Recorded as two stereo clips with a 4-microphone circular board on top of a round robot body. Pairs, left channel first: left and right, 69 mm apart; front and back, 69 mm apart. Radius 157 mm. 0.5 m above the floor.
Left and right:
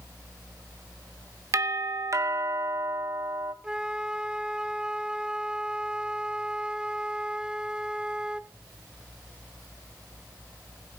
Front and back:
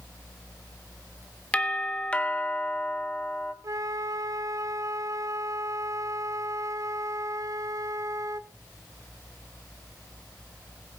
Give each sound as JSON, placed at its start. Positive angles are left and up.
{"t": 1.5, "sound": "a doorbell", "azimuth_deg": -70, "distance_m": 2.5}
{"t": 3.6, "sound": "a flute", "azimuth_deg": -165, "distance_m": 0.9}